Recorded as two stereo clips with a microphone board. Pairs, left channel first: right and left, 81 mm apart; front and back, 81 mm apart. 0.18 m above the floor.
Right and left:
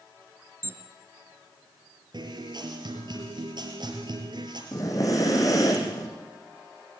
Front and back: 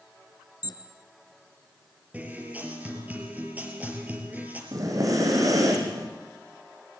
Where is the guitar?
110° left, 5 m.